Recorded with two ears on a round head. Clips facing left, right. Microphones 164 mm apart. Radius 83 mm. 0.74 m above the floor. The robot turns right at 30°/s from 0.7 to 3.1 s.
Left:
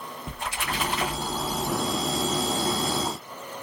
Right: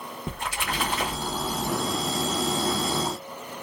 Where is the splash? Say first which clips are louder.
Right 1 dB; 50° right, 1.5 m; by 1.7 s 20° right, 1.5 m.